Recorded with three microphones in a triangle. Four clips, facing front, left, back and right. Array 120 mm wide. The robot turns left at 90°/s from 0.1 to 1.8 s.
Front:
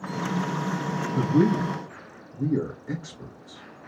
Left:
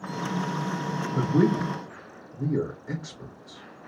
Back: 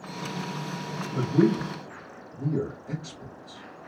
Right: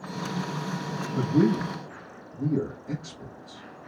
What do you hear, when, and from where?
1.1 s a man speaking: 120° left, 4 m; by 3.6 s 55° left, 4 m